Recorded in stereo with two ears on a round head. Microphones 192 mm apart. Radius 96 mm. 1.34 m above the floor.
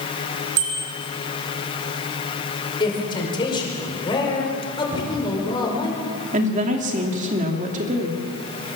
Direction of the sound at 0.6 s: 65° right (ahead or behind).